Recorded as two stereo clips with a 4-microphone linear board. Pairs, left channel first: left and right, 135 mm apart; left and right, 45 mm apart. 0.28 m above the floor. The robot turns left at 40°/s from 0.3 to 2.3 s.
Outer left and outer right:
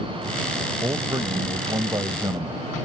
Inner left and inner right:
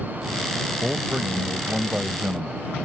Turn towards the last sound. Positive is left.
turn(degrees=-120)